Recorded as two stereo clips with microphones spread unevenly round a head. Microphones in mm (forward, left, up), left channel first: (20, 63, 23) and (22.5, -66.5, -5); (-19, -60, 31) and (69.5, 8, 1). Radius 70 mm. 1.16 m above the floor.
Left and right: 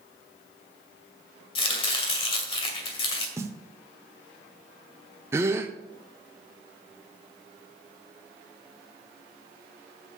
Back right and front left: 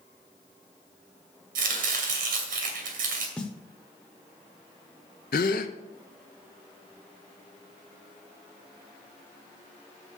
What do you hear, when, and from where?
1.6 s chopping: 50° left, 2 m
3.4 s a snare drum: 165° right, 0.8 m
5.3 s a gasp: 160° right, 0.7 m